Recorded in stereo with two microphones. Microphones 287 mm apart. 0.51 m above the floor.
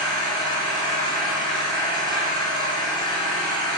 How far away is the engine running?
About 1.3 m.